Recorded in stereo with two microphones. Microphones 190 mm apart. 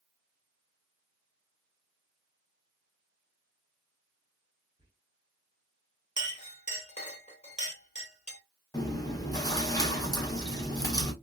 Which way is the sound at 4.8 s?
25° right (ahead or behind).